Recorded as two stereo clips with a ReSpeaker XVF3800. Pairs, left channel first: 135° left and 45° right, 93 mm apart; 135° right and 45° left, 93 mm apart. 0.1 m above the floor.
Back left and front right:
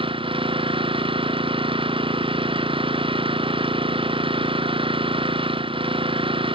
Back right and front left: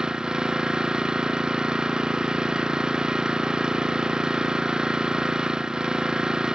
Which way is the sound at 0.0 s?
40° right.